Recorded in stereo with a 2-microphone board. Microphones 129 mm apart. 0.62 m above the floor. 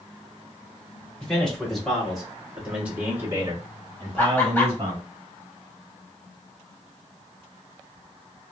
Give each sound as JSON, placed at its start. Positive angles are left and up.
{"t": 1.2, "sound": "a man speaking", "side_deg": 5, "distance_m": 1.6}
{"t": 4.2, "sound": "laughter", "side_deg": 15, "distance_m": 1.0}